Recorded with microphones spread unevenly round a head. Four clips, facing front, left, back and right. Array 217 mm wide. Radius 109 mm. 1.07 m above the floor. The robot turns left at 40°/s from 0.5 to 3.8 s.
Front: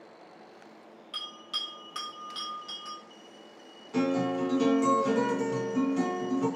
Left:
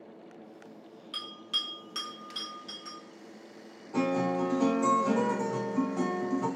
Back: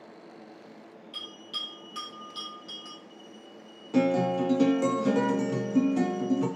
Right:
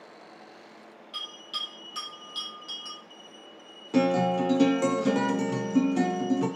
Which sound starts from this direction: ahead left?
A bell, at 1.1 s.